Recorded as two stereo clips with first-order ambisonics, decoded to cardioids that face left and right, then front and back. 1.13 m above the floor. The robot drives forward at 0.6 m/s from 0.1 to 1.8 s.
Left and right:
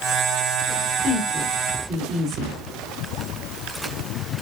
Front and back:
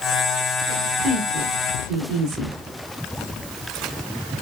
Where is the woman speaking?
140° right, 2.5 m; by 2.6 s 145° right, 2.5 m.